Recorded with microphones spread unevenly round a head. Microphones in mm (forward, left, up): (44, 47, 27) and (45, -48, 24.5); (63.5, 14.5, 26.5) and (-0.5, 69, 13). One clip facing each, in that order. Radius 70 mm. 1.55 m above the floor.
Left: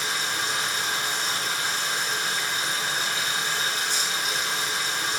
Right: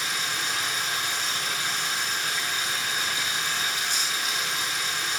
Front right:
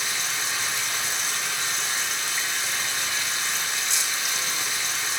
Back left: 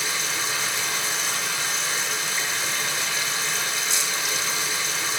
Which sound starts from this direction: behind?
Running water, at 0.0 s.